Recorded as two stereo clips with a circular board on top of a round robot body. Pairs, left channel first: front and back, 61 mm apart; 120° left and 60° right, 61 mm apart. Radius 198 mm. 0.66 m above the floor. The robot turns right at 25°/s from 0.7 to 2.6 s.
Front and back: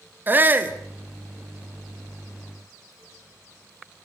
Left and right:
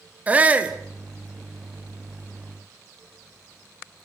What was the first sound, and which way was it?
A shout, 125° right.